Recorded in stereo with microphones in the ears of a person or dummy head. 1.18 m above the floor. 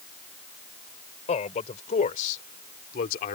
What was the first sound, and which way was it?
A man speaking, 40° left (ahead or behind).